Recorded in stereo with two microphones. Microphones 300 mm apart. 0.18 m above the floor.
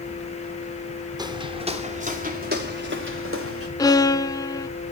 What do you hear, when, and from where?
1.2 s footsteps: 15° right (ahead or behind), 2.5 m; by 3.7 s 50° right (ahead or behind), 3 m
3.8 s a violin: 15° left (ahead or behind), 0.6 m